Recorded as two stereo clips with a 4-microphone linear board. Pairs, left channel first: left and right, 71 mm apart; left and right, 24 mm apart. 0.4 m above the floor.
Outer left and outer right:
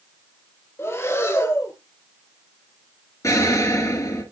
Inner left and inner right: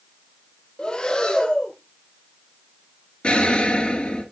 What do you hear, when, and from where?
0.8 s breathing: 35° left (ahead or behind), 1.9 m
3.2 s an explosion: 50° left (ahead or behind), 4 m